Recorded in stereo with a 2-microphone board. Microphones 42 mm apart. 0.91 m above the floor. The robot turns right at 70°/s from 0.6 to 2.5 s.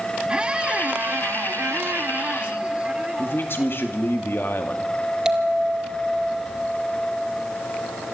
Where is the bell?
15° right (ahead or behind), 2 m.